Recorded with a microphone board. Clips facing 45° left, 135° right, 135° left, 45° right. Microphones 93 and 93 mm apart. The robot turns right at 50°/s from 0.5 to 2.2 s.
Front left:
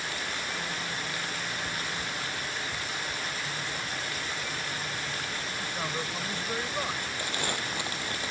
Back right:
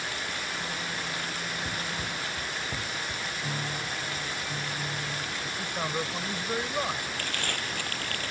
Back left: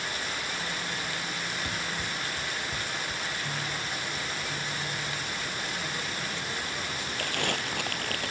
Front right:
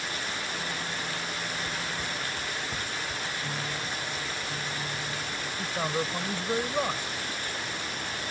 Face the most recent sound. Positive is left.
turn(degrees=120)